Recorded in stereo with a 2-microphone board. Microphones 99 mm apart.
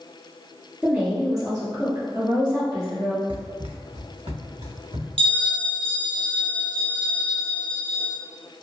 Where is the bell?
60° right (ahead or behind), 1.3 m.